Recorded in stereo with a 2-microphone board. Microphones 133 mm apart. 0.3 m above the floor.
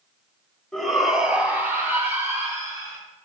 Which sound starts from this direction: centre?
A shout, at 0.7 s.